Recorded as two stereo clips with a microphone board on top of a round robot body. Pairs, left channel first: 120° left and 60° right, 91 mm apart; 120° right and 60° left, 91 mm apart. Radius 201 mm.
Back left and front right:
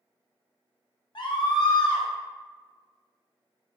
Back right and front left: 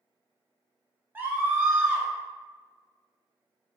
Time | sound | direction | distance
1.1 | a scream | 125° left | 0.7 m